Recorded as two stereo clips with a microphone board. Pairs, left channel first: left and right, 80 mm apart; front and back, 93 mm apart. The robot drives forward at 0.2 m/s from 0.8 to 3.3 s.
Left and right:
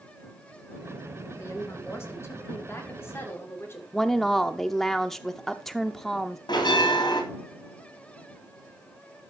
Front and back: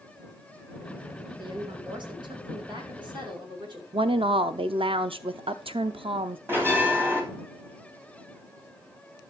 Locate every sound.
1.4 s a woman speaking: 145° left, 2.5 m; by 3.8 s 150° left, 2.5 m
3.9 s a woman speaking: straight behind, 0.7 m
6.5 s a bell: 115° left, 3.5 m